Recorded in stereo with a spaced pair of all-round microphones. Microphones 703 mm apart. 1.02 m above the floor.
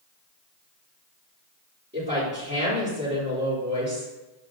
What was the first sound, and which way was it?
A woman speaking, 15° right (ahead or behind).